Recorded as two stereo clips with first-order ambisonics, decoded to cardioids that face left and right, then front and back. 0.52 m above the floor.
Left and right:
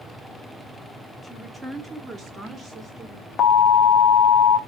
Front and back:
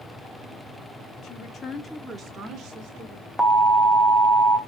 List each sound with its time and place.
1.2 s a woman speaking: 5° left, 1.4 m; by 3.3 s 140° right, 2.5 m
3.4 s an alarm: 95° left, 1.1 m